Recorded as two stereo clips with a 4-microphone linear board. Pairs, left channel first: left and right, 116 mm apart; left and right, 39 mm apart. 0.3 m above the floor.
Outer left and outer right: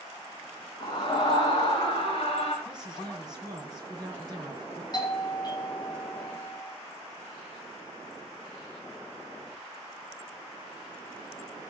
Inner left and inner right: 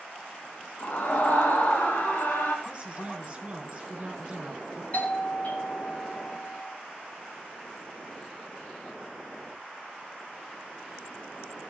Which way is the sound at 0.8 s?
40° left (ahead or behind).